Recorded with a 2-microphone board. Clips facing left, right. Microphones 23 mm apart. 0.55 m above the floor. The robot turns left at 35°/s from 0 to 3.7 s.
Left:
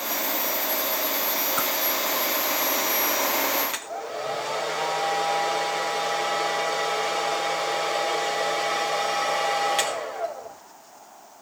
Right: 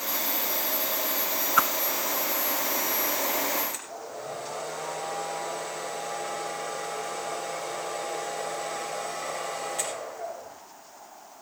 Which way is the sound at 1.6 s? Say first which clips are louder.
Right 8 dB; 50° right (ahead or behind).